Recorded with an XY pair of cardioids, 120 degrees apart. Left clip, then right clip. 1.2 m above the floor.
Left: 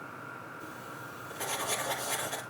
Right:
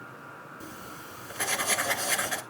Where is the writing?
70° right, 2 m.